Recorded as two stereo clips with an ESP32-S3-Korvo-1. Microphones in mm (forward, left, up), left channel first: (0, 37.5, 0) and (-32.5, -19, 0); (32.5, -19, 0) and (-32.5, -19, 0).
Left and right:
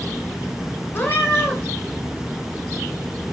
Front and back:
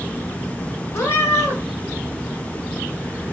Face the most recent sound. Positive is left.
turn(degrees=20)